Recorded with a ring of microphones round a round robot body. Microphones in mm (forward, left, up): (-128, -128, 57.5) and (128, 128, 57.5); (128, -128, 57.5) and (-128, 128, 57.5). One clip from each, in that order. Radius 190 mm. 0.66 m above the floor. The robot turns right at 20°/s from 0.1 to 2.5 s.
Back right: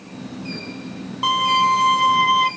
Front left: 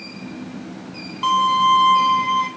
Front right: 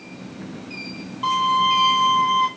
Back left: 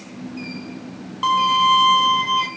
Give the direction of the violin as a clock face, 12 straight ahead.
7 o'clock.